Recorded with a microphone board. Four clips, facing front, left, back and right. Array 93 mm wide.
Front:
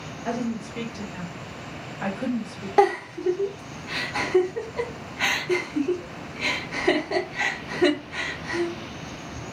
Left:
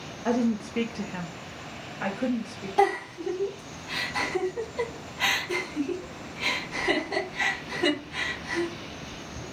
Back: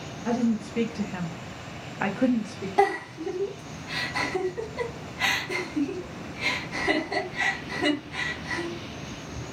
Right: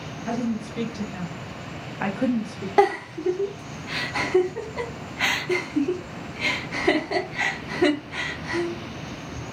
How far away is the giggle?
About 0.8 m.